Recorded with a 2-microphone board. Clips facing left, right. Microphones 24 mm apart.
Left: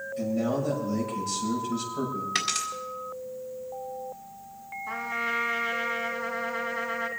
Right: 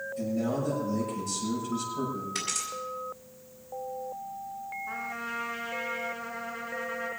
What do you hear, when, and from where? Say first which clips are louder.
0.2 s a man speaking: left 3 dB; 35° left (ahead or behind), 6.5 m
2.4 s a dropped coin: left 7 dB; 70° left (ahead or behind), 4 m
4.9 s a trumpet: left 8 dB; 55° left (ahead or behind), 3 m